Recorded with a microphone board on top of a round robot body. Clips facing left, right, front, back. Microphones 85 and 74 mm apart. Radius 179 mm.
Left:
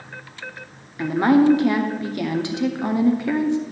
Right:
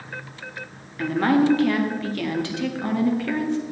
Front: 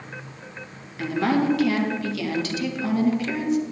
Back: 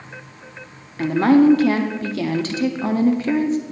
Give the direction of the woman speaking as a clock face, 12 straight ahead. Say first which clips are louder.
Left 3 dB, back 8 dB; 7 o'clock.